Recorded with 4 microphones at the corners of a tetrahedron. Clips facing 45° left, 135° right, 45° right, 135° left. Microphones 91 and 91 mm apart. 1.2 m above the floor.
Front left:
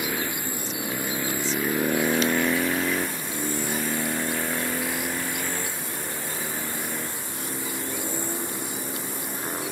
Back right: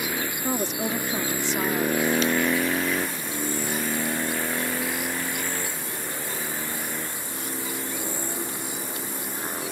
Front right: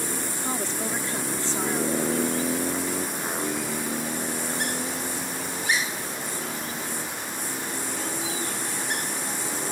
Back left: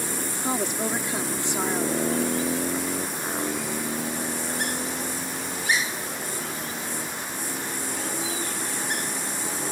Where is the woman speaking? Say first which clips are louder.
Back right 5 dB, back left 5 dB; 155° right.